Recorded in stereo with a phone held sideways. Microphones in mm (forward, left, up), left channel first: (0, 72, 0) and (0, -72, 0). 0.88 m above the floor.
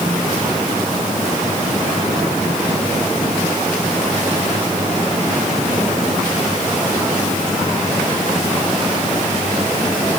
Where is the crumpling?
No crumpling in this recording.